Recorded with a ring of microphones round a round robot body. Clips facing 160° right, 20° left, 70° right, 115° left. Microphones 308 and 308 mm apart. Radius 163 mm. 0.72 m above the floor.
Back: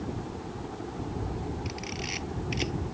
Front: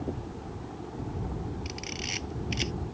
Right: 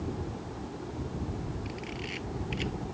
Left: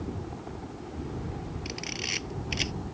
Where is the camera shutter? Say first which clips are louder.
Back 2 dB, even; 85° left.